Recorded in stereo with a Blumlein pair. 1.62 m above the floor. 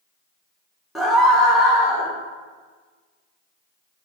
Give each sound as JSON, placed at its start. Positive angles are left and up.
{"t": 0.9, "sound": "a scream", "azimuth_deg": 5, "distance_m": 2.0}